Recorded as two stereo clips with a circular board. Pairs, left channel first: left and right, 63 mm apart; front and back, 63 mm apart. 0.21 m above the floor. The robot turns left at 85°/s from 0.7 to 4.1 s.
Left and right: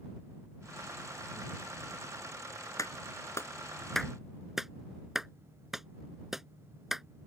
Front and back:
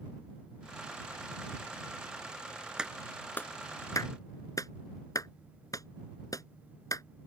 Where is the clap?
105° left; by 7.0 s 5° right.